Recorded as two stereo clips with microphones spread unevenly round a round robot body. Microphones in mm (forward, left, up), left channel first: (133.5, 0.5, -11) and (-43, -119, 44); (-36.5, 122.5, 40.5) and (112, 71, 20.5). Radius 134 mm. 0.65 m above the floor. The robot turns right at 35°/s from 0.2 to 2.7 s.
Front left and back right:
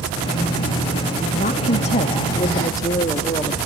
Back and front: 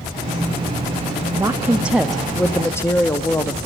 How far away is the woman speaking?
About 0.9 m.